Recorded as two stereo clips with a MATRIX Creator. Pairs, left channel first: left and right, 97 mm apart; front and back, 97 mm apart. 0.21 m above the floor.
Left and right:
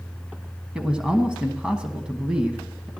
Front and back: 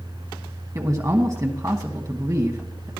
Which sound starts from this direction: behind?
A man speaking, at 0.8 s.